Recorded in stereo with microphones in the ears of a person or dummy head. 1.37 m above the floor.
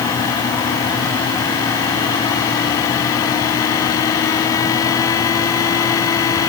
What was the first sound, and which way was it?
Only background noise.